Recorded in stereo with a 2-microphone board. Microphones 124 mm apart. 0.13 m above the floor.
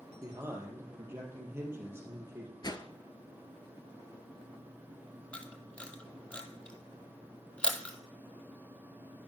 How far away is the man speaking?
About 3 m.